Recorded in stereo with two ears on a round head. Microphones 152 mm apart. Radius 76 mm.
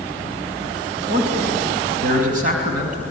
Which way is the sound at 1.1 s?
55° right (ahead or behind).